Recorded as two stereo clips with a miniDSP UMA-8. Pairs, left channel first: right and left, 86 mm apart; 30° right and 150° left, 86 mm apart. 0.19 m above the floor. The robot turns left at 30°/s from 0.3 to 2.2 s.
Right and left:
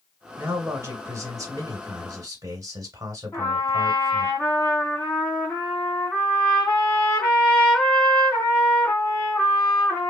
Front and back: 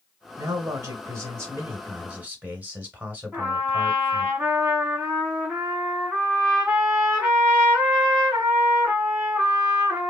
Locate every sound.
0.4 s a man speaking: 140° left, 1.4 m; by 4.3 s 85° left, 1.4 m
3.3 s a trumpet: 155° right, 1.9 m